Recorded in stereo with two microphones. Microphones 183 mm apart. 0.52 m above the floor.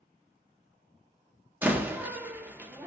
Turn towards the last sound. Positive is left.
turn(degrees=-10)  # may be behind; listen again after turning